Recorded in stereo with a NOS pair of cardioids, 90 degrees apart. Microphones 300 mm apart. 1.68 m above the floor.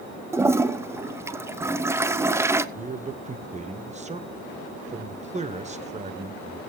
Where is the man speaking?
25° right, 1.1 m.